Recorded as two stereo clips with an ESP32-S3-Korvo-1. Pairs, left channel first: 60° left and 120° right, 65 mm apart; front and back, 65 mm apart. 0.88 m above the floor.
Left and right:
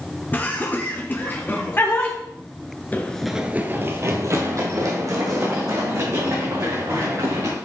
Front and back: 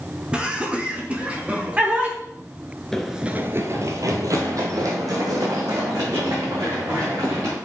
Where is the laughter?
115° left, 1.3 m.